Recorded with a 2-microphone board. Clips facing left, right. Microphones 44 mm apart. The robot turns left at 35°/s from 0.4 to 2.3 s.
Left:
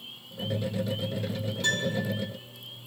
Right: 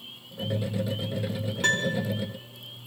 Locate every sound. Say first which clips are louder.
1.6 s a piano: right 3 dB; 50° right (ahead or behind), 1.7 m; by 2.0 s 65° right (ahead or behind), 1.7 m